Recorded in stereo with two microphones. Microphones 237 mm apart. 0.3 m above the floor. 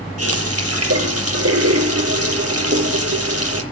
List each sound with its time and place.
0.2 s a running tap: 80° right, 5.5 m